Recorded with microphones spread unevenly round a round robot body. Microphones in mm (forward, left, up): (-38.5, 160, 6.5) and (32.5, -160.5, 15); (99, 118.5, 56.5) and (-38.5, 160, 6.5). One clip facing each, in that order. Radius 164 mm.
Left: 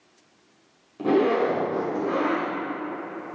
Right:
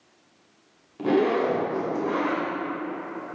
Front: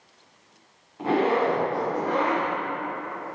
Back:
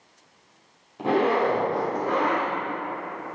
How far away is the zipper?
About 2 m.